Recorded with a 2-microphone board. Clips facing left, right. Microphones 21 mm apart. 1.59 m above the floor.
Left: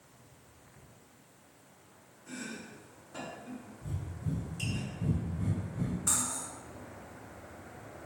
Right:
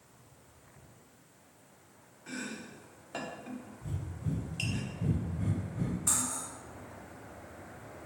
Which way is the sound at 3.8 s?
30° right (ahead or behind).